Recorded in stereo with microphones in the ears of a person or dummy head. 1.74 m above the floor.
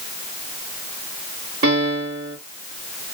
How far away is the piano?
About 2.5 m.